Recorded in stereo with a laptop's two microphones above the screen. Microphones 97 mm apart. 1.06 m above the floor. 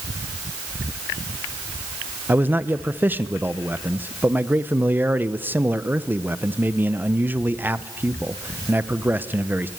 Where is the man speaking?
20° right (ahead or behind), 0.7 m.